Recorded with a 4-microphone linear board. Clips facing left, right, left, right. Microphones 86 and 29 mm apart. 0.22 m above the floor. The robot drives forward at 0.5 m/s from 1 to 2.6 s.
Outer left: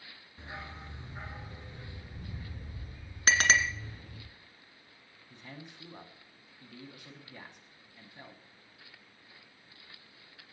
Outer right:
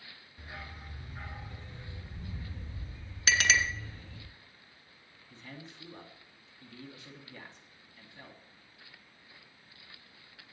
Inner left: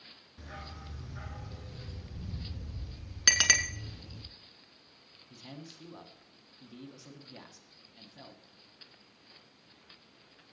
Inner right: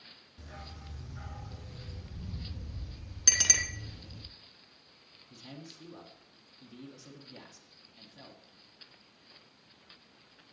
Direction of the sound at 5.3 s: 15° left (ahead or behind).